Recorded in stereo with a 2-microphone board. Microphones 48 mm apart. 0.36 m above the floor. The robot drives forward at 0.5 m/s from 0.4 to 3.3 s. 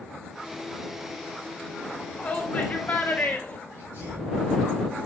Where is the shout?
20° left (ahead or behind), 3.5 m; by 3.6 s 25° left (ahead or behind), 3 m.